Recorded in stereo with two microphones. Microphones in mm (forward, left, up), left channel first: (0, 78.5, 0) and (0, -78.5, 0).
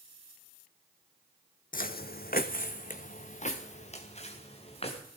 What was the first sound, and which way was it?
Footsteps, 65° left (ahead or behind).